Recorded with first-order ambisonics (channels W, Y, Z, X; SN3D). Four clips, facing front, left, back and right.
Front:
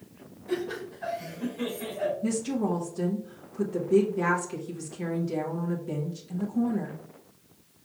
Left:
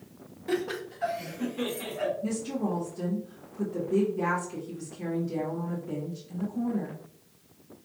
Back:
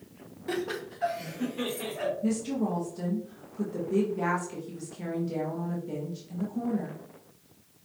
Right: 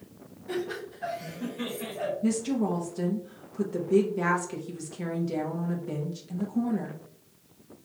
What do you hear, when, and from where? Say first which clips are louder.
0.5 s laughter: left 2 dB, front 1 dB; 135° left, 1.4 m; by 2.1 s 145° left, 2.5 m
2.2 s a woman speaking: right 4 dB, front 1 dB; 70° right, 0.9 m